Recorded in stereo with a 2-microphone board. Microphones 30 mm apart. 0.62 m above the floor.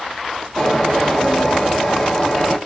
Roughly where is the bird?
Centre.